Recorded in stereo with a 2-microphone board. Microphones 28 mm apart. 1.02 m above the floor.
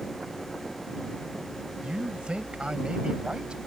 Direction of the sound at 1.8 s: 35° right (ahead or behind).